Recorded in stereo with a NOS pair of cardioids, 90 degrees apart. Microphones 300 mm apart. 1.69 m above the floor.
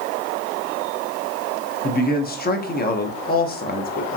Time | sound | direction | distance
1.8 | a man speaking | 30° left | 0.7 m